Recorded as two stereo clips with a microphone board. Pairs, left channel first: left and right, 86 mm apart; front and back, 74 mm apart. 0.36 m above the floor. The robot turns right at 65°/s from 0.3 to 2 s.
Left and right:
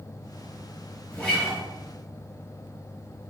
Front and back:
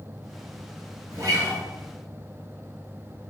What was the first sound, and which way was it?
A guitar, 160° left.